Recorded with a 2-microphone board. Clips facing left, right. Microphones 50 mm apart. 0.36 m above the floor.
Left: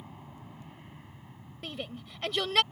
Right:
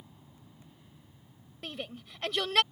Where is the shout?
Centre (ahead or behind).